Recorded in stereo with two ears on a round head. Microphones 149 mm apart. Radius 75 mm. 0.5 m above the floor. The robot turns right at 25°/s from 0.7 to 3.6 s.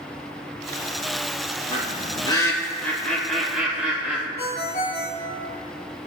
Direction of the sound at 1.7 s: 40° left (ahead or behind).